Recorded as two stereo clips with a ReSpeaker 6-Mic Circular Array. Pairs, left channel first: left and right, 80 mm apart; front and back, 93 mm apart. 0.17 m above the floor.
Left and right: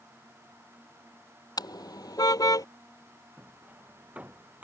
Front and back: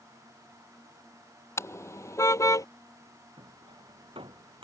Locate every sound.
1.6 s a car horn: 60° left; by 2.7 s 55° left
3.4 s hammering: 160° right